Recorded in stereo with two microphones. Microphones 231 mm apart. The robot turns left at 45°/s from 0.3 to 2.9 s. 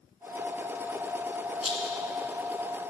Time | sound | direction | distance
1.6 | a rattle | 75° left (ahead or behind) | 1.0 m